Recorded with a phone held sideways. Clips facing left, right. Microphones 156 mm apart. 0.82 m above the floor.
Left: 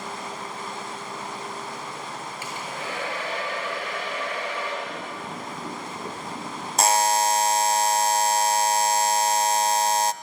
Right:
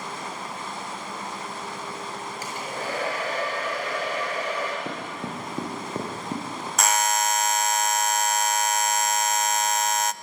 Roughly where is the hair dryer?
Right.